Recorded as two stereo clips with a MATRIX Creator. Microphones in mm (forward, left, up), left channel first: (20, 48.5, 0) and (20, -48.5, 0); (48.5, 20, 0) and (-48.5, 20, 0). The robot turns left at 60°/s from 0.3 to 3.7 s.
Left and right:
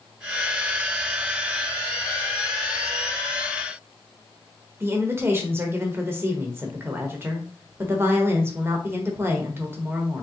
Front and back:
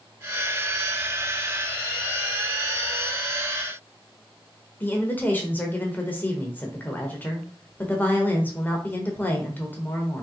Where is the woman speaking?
50° right, 1.1 m.